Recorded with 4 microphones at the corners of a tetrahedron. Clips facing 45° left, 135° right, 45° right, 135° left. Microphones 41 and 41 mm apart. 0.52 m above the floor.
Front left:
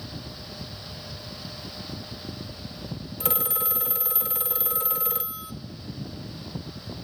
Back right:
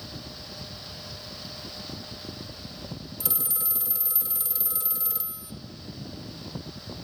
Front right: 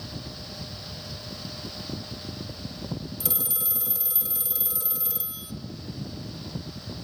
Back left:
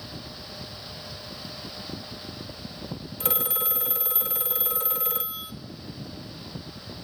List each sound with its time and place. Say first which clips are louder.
3.2 s a phone ringing: front left 12 dB, back left 6 dB; 90° left, 0.8 m